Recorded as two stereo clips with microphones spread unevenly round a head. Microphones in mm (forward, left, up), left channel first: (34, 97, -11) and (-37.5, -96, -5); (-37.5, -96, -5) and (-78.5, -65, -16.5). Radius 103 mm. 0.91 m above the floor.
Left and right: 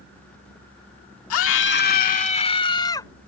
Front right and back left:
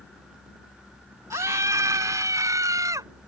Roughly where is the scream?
Left.